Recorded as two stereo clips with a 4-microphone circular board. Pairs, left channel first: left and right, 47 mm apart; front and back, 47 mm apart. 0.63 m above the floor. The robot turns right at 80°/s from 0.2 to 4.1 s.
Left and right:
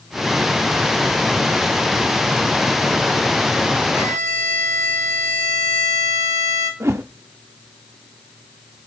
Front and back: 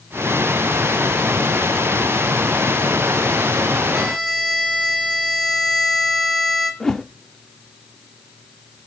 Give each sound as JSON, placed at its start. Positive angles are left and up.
{"t": 3.9, "sound": "a violin", "azimuth_deg": -100, "distance_m": 1.9}
{"t": 6.8, "sound": "a whoosh", "azimuth_deg": -80, "distance_m": 0.5}